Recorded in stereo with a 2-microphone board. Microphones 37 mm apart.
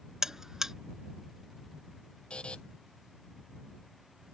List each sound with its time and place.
0.2 s a buzzer: 15° right (ahead or behind)
2.3 s a buzzer: 30° left (ahead or behind)